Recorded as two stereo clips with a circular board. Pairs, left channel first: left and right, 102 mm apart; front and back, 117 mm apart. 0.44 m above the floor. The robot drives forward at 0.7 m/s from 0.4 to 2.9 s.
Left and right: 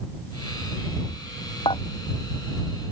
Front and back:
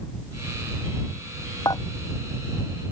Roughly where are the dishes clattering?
Ahead left.